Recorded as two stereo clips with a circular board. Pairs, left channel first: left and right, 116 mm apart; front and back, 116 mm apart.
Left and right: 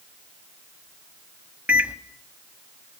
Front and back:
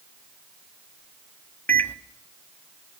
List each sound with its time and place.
1.7 s a microwave: 35° right, 0.9 m